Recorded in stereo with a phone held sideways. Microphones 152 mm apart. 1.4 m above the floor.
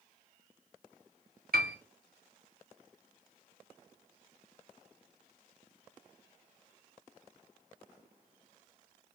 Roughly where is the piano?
Right.